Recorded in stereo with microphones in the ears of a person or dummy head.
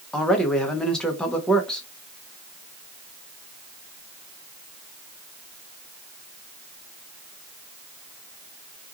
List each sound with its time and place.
0.1 s a man speaking: centre (ahead or behind), 0.6 m